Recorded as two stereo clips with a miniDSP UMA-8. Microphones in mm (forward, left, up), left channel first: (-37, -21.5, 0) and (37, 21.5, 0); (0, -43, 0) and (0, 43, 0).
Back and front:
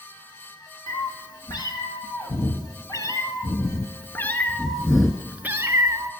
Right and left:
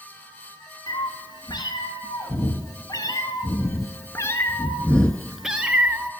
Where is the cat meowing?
120° right, 2 m; by 6.1 s 40° left, 0.8 m.